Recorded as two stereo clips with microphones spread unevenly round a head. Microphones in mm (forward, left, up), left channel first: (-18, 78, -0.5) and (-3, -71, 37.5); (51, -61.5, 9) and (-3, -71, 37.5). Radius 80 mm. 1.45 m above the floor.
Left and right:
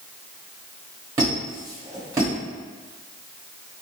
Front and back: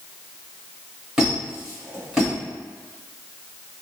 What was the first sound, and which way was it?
A squeak, 125° right.